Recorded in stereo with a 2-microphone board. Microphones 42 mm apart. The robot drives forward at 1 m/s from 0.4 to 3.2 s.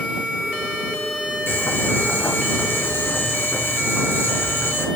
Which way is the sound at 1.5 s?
65° left (ahead or behind).